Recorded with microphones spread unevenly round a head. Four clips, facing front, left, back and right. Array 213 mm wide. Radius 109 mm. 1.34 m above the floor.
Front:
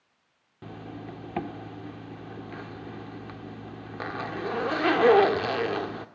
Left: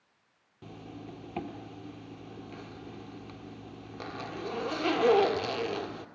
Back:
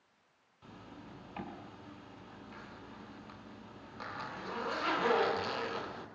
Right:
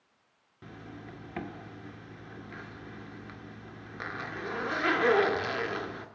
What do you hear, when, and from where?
0.6 s a zipper: straight ahead, 1.9 m